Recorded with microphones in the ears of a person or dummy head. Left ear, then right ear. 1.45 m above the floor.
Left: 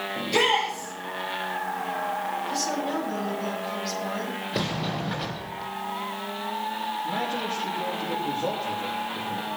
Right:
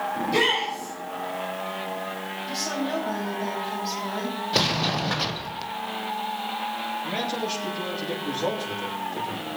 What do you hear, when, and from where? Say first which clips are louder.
0.1 s a shout: left 1 dB; 15° left (ahead or behind), 5.5 m
2.5 s a woman speaking: left 1 dB; 5° right (ahead or behind), 8.5 m
4.5 s a sliding door: right 8 dB; 25° right (ahead or behind), 0.9 m
7.0 s a man speaking: even; 80° right, 3.5 m